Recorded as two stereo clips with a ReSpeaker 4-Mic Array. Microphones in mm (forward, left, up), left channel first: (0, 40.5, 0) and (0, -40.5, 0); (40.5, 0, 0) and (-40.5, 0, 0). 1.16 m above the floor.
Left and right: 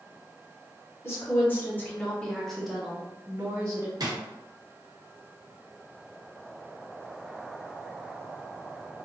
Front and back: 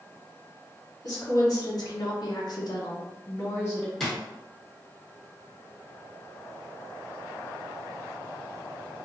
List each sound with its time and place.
1.0 s a woman speaking: 35° left, 1.3 m; by 3.9 s 55° right, 0.8 m
4.0 s a drawer: 85° right, 0.9 m